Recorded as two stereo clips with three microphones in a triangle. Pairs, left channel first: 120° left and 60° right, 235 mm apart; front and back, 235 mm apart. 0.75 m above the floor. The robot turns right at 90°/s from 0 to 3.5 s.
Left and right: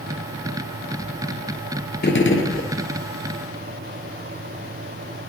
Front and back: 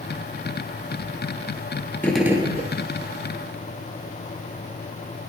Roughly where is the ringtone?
I don't hear a ringtone.